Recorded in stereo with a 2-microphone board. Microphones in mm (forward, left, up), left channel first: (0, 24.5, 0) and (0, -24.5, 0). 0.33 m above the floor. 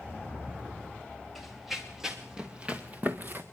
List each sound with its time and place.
1.4 s running footsteps: centre (ahead or behind), 3 m; by 3.4 s 40° right (ahead or behind), 1.9 m